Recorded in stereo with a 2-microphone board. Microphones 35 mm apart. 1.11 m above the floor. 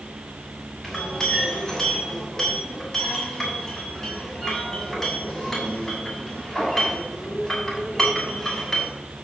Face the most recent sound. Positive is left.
turn(degrees=10)  # may be behind; listen again after turning